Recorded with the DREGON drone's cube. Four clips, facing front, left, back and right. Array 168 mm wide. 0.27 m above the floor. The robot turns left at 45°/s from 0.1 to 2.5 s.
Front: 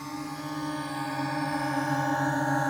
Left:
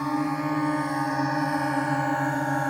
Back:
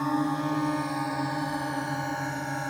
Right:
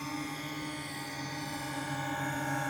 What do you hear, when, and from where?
0.0 s a drone: 130° left; by 2.7 s 55° left